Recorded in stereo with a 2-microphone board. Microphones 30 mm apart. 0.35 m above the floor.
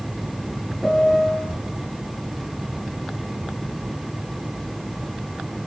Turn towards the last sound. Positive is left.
turn(degrees=0)  # may be behind; listen again after turning